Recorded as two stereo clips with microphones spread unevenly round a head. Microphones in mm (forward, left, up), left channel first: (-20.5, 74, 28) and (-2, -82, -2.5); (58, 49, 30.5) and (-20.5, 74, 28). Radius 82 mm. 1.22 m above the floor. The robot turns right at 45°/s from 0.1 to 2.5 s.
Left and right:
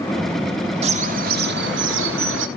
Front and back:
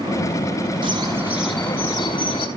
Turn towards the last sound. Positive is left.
turn(degrees=-60)